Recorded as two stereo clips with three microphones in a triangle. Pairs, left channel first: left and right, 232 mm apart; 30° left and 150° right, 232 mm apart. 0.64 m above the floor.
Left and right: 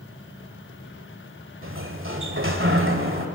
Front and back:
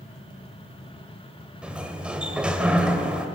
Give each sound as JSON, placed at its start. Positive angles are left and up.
{"t": 1.6, "sound": "a sliding door", "azimuth_deg": -65, "distance_m": 2.0}